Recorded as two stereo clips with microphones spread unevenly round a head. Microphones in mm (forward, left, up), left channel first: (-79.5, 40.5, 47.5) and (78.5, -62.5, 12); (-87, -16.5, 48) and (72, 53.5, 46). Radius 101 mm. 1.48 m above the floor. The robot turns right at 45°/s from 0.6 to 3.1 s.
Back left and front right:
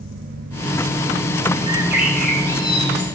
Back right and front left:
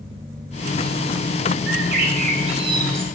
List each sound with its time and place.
1.7 s a bird: 40° left, 3 m; by 3.0 s 100° left, 3 m